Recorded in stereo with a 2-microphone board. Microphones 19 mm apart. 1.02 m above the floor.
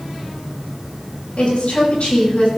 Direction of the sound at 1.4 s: 75° left (ahead or behind).